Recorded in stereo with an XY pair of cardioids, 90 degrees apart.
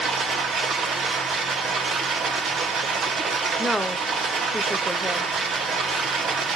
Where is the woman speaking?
5° right, 0.8 m.